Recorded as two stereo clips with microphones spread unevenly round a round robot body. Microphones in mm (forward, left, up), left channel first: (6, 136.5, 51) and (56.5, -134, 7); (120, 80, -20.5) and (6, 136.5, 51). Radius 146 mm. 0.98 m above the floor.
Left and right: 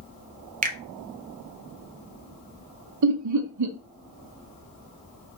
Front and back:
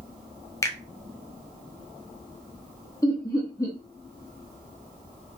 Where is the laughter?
80° right, 0.6 m.